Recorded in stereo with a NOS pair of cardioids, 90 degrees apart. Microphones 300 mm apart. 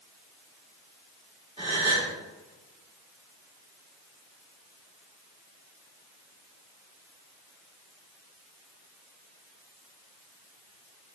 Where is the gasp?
20° right, 1.9 m.